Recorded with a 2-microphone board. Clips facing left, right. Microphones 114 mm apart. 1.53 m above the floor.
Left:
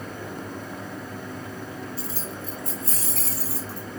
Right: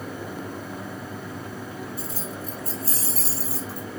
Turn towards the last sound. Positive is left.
turn(degrees=-20)  # may be behind; listen again after turning